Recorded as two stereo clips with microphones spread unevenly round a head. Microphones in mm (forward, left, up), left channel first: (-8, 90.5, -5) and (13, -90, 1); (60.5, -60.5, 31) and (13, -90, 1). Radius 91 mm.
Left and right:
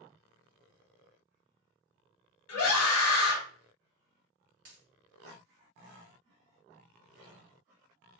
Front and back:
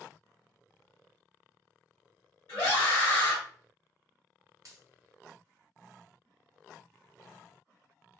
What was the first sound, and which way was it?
A scream, 105° left.